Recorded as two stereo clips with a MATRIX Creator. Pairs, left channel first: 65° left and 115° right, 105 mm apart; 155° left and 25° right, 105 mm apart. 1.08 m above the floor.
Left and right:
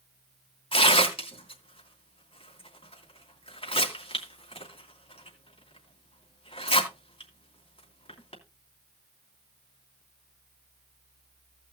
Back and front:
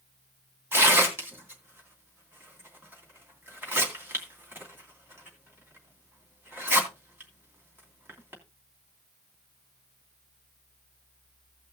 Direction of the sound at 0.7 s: 45° left.